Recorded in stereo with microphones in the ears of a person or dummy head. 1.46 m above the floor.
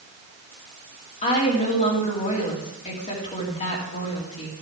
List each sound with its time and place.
1.2 s a woman speaking: 35° left (ahead or behind), 2.5 m